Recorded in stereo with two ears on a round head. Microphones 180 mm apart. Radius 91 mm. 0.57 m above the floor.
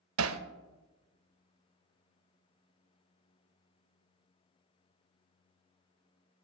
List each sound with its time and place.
0.2 s hammering: 80° right, 0.6 m